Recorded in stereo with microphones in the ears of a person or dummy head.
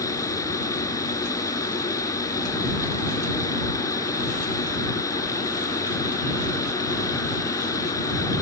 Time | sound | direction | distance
0.0 | a machine running | 20° left (ahead or behind) | ?